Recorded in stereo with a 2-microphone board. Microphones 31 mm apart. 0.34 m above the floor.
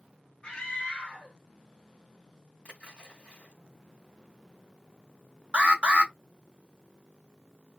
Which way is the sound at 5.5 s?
40° right (ahead or behind).